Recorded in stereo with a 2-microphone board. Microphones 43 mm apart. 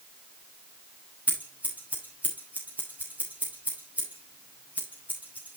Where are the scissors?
40° right (ahead or behind), 3 m.